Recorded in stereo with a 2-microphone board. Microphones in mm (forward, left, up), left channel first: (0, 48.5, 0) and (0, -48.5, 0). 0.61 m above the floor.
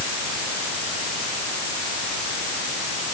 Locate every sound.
Only background noise.